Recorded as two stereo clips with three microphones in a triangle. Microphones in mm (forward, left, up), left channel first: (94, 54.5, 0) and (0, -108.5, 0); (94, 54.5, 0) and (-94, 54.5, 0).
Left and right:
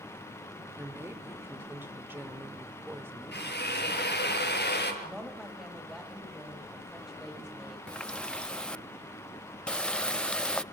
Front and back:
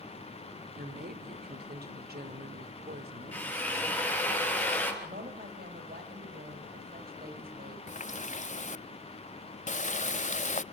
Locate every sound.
0.8 s a woman speaking: 165° left, 2.5 m
3.3 s a drill: 80° left, 6 m
5.0 s a woman speaking: 150° left, 4.5 m
7.9 s a running tap: 25° right, 0.5 m